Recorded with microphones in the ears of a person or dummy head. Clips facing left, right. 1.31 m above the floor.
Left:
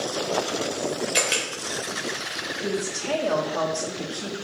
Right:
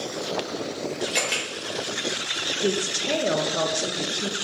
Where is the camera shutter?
5° left (ahead or behind), 1.4 m.